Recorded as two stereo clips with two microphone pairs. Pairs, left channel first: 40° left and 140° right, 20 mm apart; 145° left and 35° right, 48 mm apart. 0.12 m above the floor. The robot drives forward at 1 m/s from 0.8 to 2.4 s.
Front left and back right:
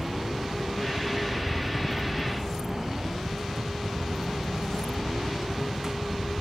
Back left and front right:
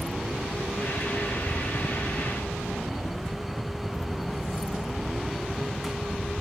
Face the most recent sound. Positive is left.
turn(degrees=125)